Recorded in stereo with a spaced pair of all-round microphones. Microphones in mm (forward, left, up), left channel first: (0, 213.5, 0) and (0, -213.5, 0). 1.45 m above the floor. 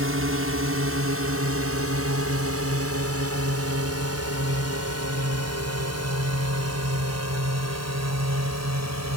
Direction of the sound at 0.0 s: 30° right (ahead or behind).